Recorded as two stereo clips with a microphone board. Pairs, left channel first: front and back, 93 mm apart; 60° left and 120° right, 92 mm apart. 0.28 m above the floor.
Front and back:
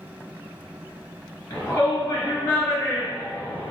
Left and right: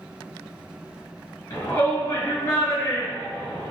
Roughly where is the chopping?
No chopping in this recording.